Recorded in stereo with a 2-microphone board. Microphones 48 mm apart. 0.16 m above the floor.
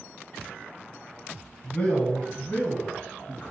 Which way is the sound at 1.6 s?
20° left (ahead or behind).